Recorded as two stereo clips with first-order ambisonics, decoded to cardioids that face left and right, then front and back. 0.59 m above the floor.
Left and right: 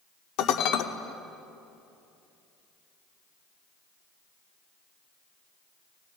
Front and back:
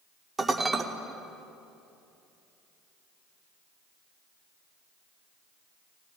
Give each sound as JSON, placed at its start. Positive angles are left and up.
{"t": 0.4, "sound": "dishes clattering", "azimuth_deg": 105, "distance_m": 0.7}